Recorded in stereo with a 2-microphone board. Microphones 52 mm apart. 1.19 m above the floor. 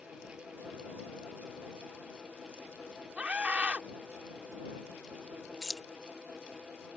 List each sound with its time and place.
3.2 s a scream: 25° right (ahead or behind)
5.6 s keys jangling: 10° right (ahead or behind)